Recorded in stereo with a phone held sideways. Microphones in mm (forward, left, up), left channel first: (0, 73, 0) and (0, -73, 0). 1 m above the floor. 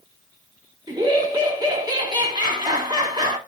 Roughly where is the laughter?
Right.